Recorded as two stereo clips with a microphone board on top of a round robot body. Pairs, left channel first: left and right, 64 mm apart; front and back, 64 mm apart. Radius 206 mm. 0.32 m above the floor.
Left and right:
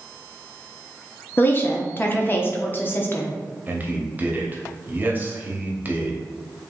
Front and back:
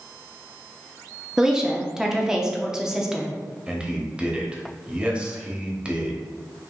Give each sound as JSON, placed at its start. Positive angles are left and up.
{"t": 1.4, "sound": "a woman speaking", "azimuth_deg": 105, "distance_m": 1.1}
{"t": 3.7, "sound": "a man speaking", "azimuth_deg": -120, "distance_m": 1.2}